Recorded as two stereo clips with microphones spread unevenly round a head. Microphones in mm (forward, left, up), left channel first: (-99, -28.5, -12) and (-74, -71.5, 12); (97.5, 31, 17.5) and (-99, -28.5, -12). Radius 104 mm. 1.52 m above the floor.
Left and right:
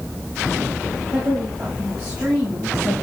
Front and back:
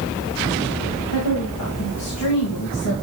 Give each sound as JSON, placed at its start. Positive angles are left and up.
{"t": 1.1, "sound": "a woman speaking", "azimuth_deg": 15, "distance_m": 2.5}